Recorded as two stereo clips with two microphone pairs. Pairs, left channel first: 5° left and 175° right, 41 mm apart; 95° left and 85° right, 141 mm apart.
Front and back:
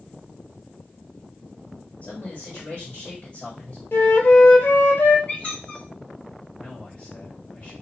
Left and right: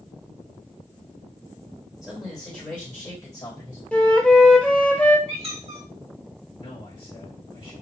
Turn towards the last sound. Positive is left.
turn(degrees=55)